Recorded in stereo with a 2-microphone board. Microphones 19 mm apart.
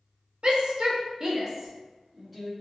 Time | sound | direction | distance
0.4 | a shout | 55° right (ahead or behind) | 0.6 m